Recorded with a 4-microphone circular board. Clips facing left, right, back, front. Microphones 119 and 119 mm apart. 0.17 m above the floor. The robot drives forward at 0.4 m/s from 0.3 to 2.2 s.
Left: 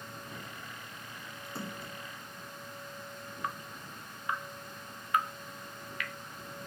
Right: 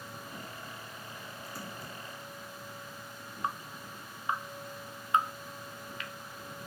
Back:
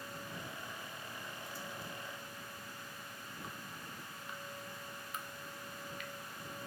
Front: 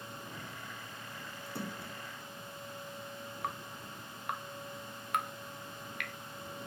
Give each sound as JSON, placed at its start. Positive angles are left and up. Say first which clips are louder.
{"t": 1.5, "sound": "a splash", "louder": "left 4 dB, front 8 dB", "azimuth_deg": 25}
{"t": 3.4, "sound": "dripping", "louder": "right 3 dB, front 10 dB", "azimuth_deg": -25}